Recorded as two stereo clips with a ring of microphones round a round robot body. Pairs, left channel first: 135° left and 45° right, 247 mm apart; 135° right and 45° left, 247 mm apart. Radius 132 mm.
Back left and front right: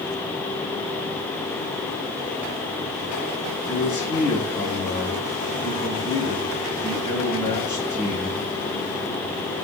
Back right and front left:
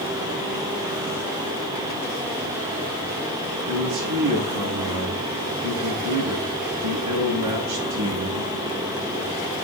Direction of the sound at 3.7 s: 55° left.